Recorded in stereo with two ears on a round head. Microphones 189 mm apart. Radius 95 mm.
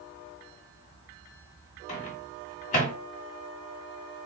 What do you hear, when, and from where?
1.9 s a microwave: 35° left (ahead or behind), 1.4 m